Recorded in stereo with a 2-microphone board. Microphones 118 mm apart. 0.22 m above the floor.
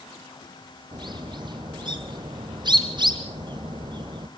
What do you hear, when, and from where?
0.9 s a bird: 40° right (ahead or behind), 3 m